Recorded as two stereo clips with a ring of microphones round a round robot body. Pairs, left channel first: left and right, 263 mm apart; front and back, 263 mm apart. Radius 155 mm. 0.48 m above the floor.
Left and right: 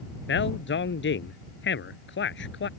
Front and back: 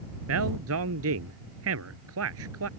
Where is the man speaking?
135° left.